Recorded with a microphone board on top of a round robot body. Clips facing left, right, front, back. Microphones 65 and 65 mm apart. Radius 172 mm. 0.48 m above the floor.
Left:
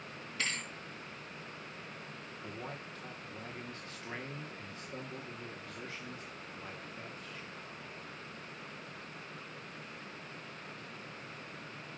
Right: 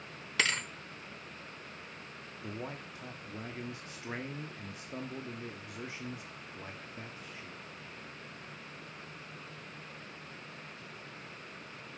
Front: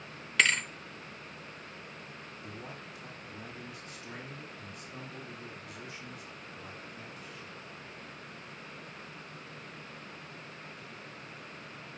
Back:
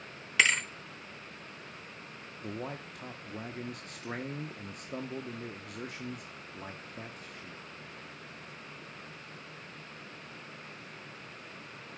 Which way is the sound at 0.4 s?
95° right.